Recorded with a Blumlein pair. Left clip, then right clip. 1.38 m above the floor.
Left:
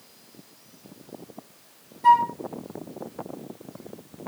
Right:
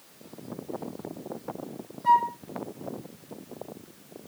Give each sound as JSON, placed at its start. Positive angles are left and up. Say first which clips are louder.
{"t": 2.0, "sound": "a flute", "louder": "left 4 dB", "azimuth_deg": 45, "distance_m": 1.8}